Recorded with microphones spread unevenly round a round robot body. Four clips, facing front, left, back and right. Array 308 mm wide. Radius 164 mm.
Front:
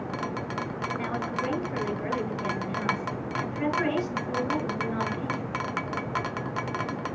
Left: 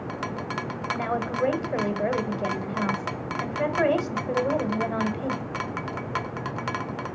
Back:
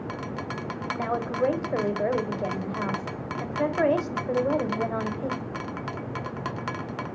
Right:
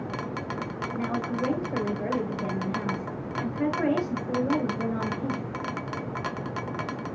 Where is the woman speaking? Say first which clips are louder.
Left 2 dB, back 6 dB; 135° left, 1.8 m.